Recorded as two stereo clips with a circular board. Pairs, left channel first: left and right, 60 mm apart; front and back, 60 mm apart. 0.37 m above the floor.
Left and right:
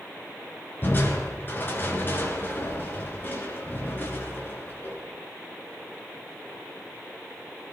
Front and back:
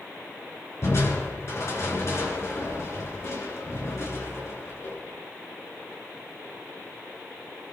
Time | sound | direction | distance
0.8 | crushing | 35° left | 4.5 m